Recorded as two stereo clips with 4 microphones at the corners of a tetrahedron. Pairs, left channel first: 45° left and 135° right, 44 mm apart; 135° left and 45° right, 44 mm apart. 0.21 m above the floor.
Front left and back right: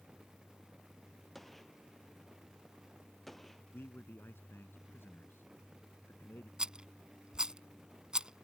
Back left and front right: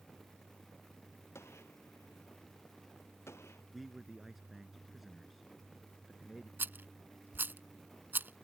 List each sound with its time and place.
1.4 s a gunshot: 130° left
3.7 s a man speaking: 45° left
6.6 s a rattle: 65° right